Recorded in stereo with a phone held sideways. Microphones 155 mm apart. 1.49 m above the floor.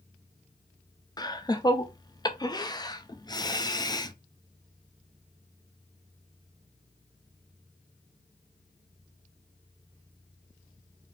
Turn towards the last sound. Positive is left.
turn(degrees=25)  # may be behind; listen again after turning